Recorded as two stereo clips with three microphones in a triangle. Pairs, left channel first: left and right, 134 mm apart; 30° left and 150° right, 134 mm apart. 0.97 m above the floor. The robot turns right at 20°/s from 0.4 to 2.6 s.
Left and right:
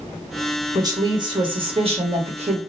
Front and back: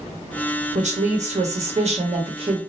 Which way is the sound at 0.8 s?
150° right.